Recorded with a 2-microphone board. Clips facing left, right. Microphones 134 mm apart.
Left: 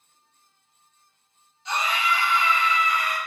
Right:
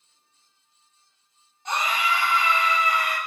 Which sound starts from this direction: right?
A scream, at 1.6 s.